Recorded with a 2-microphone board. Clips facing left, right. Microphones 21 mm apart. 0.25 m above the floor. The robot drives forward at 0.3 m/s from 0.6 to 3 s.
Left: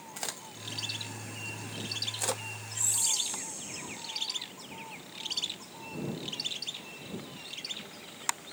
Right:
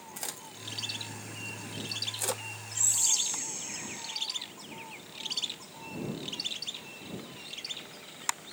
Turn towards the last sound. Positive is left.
turn(degrees=-45)  # may be behind; listen again after turning